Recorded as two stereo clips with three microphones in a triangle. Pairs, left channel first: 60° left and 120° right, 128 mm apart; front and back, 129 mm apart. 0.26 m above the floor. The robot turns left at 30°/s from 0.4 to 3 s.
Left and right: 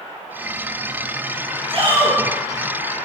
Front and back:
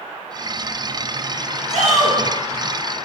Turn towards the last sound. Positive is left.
turn(degrees=160)